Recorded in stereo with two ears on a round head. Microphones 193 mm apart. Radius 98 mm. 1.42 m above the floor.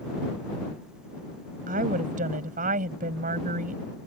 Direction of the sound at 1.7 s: 35° right (ahead or behind).